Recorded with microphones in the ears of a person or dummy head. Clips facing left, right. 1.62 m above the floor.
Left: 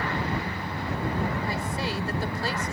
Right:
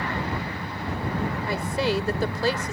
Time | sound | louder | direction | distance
1.5 | a woman speaking | right 5 dB | 65° right (ahead or behind) | ?